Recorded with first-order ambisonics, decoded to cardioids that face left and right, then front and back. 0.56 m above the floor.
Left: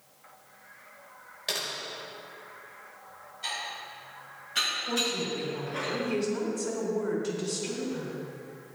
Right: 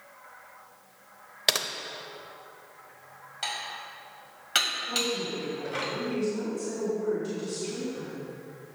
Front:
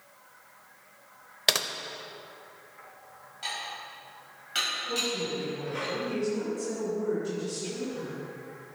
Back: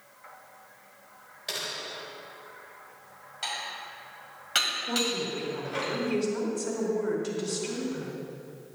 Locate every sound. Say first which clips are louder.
1.5 s typing on a keyboard: right 6 dB, front 9 dB; 40° right, 0.7 m
3.4 s dishes clattering: right 1 dB, back 1 dB; 115° right, 2.5 m
4.9 s a woman speaking: even, back 1 dB; 145° left, 2.5 m